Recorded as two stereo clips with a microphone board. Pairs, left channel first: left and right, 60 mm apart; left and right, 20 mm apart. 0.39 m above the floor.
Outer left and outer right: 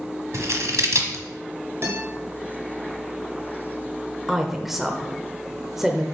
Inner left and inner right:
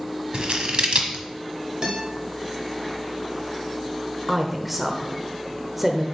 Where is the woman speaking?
5° right (ahead or behind), 0.9 m.